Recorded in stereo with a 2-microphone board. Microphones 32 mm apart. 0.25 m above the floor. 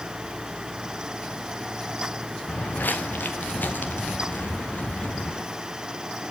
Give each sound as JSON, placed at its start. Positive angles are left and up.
{"t": 2.5, "sound": "footsteps", "side_deg": 80, "distance_m": 1.5}